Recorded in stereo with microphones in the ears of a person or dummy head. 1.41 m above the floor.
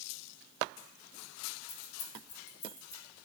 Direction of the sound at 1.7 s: 55° left (ahead or behind).